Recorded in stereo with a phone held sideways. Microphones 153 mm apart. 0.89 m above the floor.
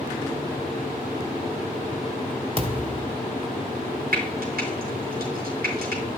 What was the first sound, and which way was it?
A thud, 40° right (ahead or behind).